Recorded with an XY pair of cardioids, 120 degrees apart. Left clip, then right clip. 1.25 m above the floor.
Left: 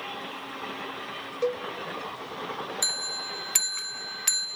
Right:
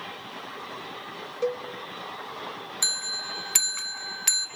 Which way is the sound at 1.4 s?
Straight ahead.